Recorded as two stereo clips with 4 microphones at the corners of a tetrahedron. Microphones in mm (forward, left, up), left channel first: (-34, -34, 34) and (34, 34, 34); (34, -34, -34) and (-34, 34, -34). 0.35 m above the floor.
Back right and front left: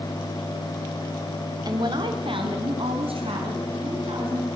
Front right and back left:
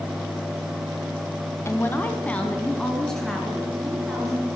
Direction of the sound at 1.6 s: 10° left.